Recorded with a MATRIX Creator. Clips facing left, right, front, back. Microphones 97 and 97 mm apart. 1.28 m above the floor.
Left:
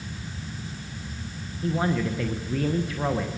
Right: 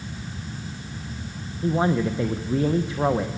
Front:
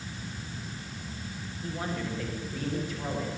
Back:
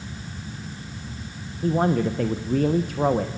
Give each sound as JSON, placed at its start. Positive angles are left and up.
{"t": 1.6, "sound": "a man speaking", "azimuth_deg": -155, "distance_m": 1.1}